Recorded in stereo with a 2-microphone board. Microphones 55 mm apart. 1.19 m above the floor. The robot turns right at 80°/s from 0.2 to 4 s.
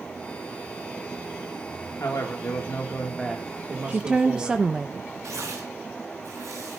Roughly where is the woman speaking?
Right.